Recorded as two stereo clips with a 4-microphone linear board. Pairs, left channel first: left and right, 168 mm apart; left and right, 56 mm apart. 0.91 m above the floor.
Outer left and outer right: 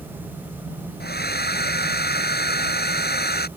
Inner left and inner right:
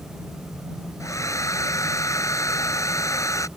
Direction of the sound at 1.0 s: 70° left (ahead or behind).